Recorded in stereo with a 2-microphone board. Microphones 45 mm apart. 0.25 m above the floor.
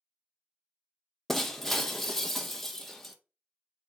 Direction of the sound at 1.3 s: 5° left (ahead or behind).